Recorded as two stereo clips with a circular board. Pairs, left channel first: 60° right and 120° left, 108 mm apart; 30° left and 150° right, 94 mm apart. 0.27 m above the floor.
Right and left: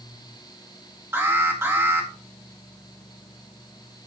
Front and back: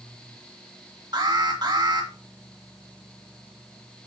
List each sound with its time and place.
1.1 s an alarm: 175° right, 2.5 m